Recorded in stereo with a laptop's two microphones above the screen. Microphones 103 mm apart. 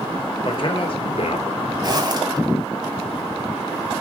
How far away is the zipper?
About 2.5 m.